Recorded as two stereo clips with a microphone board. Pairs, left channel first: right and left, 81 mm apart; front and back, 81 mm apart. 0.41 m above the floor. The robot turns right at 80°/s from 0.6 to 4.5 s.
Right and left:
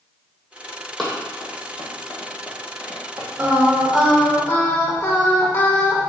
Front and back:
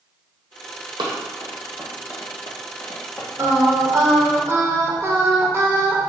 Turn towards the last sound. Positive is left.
turn(degrees=-140)